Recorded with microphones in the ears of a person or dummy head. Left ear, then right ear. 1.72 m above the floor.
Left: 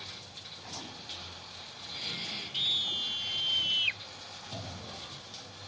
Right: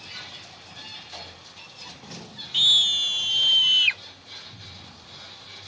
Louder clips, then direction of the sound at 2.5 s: Right 12 dB; 50° right (ahead or behind).